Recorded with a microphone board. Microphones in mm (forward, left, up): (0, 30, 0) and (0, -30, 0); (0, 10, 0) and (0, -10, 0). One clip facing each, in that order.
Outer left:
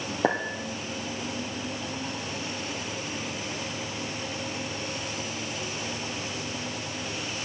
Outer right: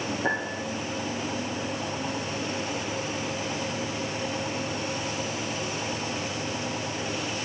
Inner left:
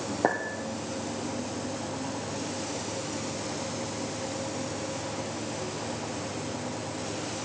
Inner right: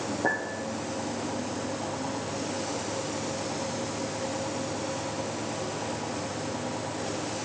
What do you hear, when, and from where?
0.2 s a clink: 60° left (ahead or behind), 2.5 m